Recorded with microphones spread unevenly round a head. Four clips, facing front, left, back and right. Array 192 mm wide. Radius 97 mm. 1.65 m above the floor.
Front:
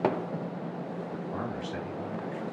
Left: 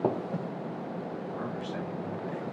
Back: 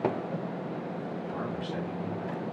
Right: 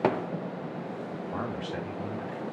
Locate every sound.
1.3 s a man speaking: 75° right, 4 m; by 2.4 s 60° right, 5 m